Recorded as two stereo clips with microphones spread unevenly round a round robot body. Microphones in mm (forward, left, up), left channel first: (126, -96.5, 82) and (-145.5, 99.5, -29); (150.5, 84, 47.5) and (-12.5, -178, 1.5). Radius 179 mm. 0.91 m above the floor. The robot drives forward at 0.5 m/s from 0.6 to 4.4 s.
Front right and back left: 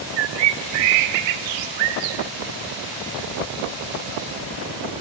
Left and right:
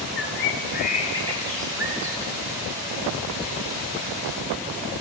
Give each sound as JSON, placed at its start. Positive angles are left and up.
{"t": 0.2, "sound": "a bird", "azimuth_deg": 120, "distance_m": 0.6}